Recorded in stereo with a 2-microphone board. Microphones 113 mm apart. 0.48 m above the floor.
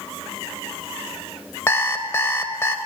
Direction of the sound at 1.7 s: 25° left (ahead or behind).